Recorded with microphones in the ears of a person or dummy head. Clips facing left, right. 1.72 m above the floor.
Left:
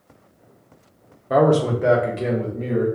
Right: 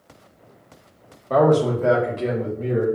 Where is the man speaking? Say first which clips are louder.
Even; 10° left (ahead or behind), 0.6 m; by 2.9 s 30° left (ahead or behind), 1.7 m.